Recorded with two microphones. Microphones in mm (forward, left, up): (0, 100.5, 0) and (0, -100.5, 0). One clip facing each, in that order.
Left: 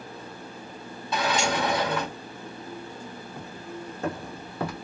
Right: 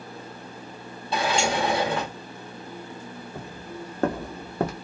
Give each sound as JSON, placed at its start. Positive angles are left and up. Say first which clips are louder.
{"t": 1.1, "sound": "a sliding door", "louder": "right 2 dB", "side_deg": -30, "distance_m": 0.9}
{"t": 3.4, "sound": "footsteps", "louder": "right 1 dB", "side_deg": -60, "distance_m": 1.2}